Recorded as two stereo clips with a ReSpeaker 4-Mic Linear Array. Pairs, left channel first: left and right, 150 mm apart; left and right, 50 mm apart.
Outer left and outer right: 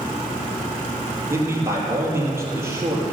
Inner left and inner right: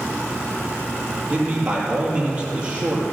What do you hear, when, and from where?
1.3 s a man speaking: 15° right (ahead or behind), 4 m